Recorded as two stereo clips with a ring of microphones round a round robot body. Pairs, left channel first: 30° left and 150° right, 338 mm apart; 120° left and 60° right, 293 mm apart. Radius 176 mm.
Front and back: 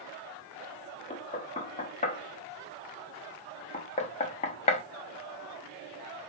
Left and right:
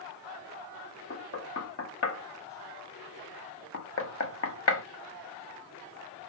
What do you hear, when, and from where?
1.1 s knocking: 95° left, 0.8 m